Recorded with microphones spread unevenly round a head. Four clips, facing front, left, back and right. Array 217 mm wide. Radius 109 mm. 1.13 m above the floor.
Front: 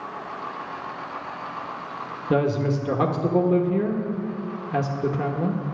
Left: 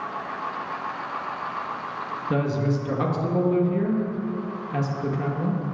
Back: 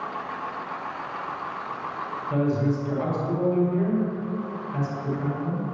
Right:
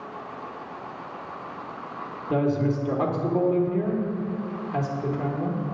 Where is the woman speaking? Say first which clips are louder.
Right 2 dB, front 2 dB; 20° left, 1.3 m.